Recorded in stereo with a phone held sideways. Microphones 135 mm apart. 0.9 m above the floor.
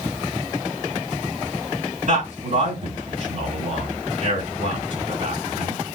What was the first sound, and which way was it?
A man speaking, 60° right (ahead or behind).